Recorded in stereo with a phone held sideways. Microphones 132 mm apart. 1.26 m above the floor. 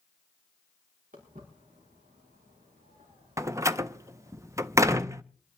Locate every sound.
1.1 s footsteps: 80° right, 6 m
3.4 s a door slam: 20° right (ahead or behind), 0.6 m